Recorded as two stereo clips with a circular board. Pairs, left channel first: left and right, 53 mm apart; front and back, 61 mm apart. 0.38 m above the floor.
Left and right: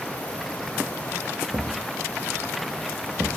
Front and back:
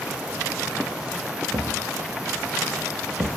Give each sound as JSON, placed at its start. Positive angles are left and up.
{"t": 1.5, "sound": "a thud", "azimuth_deg": -150, "distance_m": 0.6}